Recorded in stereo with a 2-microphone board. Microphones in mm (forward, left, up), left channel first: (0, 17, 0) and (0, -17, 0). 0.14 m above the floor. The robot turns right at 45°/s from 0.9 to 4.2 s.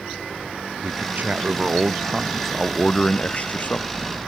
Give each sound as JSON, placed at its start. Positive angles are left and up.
{"t": 0.8, "sound": "a man speaking", "azimuth_deg": -65}